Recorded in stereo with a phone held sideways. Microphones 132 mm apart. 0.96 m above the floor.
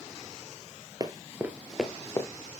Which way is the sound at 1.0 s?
25° right (ahead or behind).